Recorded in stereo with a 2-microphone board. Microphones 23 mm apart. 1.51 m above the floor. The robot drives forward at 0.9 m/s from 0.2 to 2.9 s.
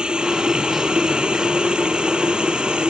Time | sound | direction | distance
0.0 | running water | 40° right (ahead or behind) | ?